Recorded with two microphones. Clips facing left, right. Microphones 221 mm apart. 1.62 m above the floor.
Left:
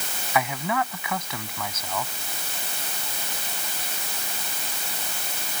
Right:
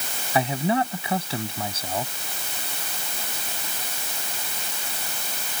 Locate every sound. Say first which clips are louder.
0.3 s a man speaking: right 4 dB; 30° right (ahead or behind)